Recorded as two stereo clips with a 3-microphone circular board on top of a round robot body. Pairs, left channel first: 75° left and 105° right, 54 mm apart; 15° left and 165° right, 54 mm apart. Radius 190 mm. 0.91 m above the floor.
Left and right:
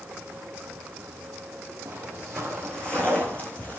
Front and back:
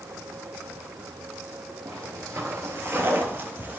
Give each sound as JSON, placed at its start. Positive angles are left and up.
{"t": 1.9, "sound": "footsteps", "azimuth_deg": -165, "distance_m": 1.1}